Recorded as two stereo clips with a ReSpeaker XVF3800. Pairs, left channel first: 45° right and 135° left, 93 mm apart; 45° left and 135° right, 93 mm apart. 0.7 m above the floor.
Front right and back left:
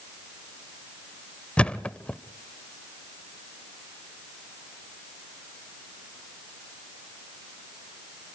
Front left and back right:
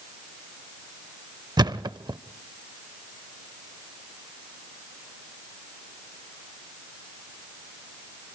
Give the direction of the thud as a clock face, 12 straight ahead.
4 o'clock.